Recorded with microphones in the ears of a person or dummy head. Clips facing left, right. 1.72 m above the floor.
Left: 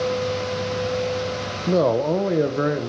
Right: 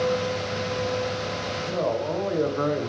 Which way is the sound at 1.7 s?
60° left (ahead or behind).